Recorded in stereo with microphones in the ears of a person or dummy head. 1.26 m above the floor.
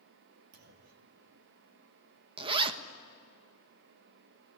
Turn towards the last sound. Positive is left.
turn(degrees=-30)  # may be behind; listen again after turning